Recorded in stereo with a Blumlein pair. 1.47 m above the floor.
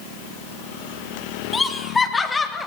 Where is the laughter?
15° left, 3.5 m; by 2.7 s 10° left, 3 m.